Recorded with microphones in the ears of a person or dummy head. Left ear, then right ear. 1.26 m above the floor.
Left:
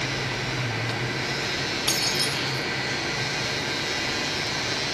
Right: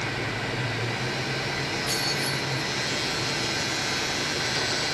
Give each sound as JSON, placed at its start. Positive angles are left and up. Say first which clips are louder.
{"t": 1.9, "sound": "keys jangling", "louder": "left 4 dB", "side_deg": 55, "distance_m": 6.0}